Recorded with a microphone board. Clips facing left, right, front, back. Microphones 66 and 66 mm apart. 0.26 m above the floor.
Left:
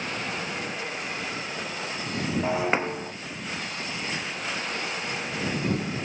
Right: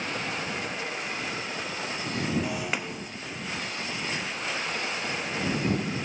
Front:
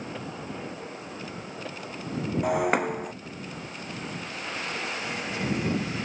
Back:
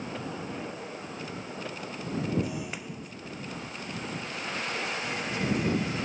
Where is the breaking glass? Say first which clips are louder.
Left 6 dB, front 12 dB; 30° left.